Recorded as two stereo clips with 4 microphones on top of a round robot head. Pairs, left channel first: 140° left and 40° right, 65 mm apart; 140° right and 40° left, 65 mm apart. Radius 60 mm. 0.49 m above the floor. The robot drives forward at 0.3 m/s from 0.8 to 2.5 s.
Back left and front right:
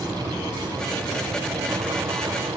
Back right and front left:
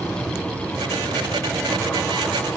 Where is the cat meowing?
I don't hear a cat meowing.